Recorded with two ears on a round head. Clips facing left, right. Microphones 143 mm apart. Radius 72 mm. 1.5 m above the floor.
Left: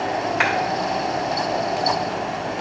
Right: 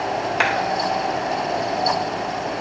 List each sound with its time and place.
0.4 s a clap: 45° right (ahead or behind), 1.7 m